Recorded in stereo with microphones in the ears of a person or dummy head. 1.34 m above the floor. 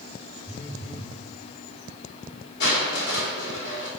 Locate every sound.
0.5 s a phone buzzing: 20° left (ahead or behind), 1.1 m
2.6 s crushing: 80° left, 3 m